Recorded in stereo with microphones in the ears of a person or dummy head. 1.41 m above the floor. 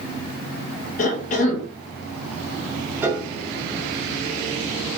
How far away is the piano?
About 0.9 m.